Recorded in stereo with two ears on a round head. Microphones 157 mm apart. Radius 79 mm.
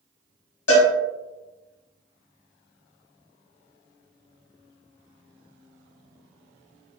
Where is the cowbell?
80° left, 1.1 m.